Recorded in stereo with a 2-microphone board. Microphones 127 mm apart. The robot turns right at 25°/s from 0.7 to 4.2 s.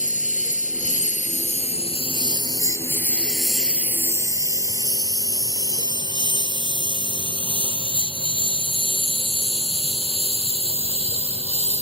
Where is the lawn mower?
85° left; by 11.8 s 55° right (ahead or behind).